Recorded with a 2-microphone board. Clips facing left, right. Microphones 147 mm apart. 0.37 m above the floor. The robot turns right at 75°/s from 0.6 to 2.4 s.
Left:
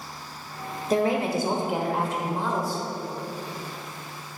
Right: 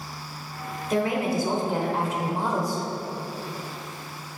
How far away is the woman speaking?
About 1.1 m.